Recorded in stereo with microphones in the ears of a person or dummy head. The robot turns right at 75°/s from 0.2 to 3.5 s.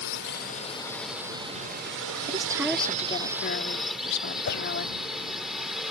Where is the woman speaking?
30° right; by 5.0 s 65° left.